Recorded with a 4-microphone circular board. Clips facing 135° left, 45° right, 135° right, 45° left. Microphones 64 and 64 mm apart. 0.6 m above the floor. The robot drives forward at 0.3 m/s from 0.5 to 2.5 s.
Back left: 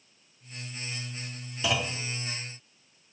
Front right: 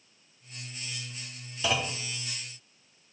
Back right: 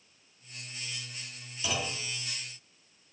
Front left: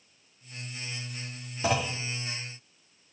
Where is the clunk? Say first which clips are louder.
Even, front left 6 dB; 50° left, 1.3 m; by 2.0 s 55° left, 1.3 m.